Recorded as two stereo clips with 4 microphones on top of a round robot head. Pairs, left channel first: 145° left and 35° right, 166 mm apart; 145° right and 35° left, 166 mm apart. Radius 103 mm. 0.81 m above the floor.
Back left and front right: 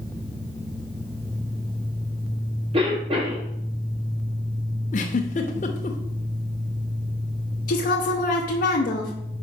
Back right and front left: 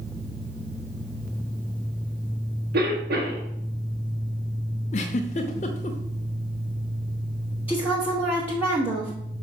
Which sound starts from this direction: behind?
A giggle, at 4.9 s.